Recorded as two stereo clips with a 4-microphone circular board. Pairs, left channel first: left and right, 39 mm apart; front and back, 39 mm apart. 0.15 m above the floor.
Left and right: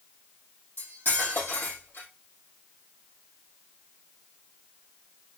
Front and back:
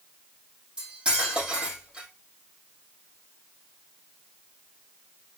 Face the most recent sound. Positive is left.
turn(degrees=115)